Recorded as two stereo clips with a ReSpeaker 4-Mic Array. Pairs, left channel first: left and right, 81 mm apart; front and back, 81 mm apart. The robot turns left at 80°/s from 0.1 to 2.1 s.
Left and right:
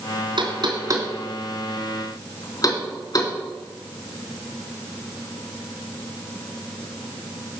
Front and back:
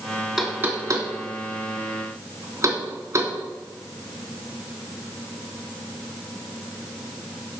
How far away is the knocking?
About 3 m.